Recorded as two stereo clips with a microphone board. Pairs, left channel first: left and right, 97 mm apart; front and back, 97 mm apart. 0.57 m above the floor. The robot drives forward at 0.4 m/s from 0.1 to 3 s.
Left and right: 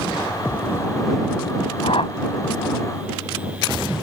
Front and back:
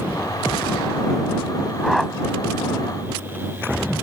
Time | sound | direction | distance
1.8 | a whoosh | 85° left | ?